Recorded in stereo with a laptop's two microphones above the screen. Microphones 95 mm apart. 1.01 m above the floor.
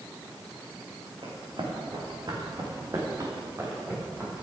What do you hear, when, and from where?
1.2 s running footsteps: 65° right (ahead or behind), 4.5 m; by 4.4 s 20° right (ahead or behind), 6 m